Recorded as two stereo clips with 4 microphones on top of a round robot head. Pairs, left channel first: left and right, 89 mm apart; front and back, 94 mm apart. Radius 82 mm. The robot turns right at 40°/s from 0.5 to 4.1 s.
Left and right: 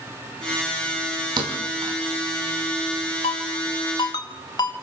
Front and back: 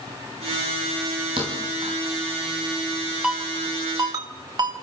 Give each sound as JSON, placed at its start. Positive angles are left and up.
{"t": 1.4, "sound": "a thud", "azimuth_deg": -130, "distance_m": 4.0}
{"t": 3.2, "sound": "a ringtone", "azimuth_deg": 100, "distance_m": 2.5}